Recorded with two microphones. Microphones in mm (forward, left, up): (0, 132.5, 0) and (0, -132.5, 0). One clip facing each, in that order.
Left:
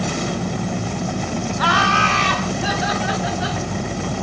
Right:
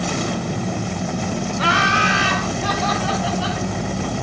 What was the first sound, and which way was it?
Laughter, 30° right (ahead or behind).